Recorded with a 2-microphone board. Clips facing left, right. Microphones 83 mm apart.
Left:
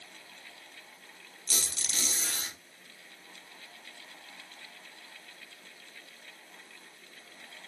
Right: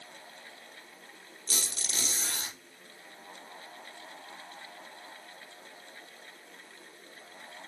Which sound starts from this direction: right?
A squeak, at 1.5 s.